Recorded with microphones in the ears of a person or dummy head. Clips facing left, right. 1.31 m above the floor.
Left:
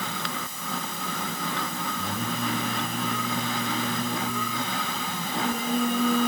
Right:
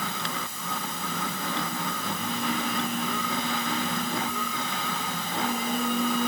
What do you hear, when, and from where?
2.0 s singing: 45° left (ahead or behind), 10 m